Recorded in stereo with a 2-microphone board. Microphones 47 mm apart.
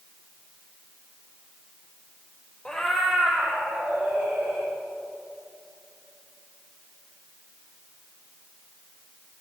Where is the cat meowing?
15° left (ahead or behind), 1.2 m; by 4.7 s 50° right (ahead or behind), 3 m.